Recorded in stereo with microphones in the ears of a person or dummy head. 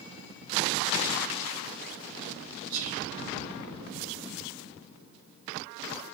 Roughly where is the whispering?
Right.